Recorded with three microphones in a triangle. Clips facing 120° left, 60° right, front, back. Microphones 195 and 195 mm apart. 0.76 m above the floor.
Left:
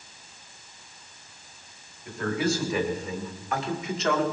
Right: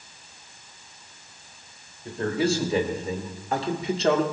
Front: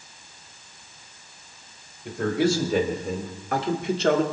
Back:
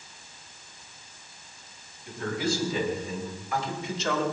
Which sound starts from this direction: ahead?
A man speaking, at 2.0 s.